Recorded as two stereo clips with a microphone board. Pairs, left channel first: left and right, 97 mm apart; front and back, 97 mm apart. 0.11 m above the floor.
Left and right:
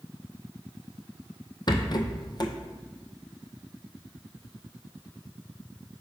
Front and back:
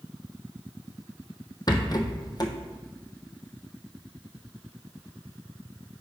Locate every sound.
1.7 s a rattle: 50° left, 0.7 m